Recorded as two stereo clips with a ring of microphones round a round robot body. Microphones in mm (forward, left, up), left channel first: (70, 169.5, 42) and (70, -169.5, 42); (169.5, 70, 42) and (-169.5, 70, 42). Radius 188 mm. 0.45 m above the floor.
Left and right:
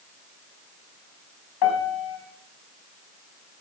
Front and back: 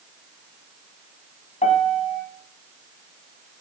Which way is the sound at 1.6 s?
70° left.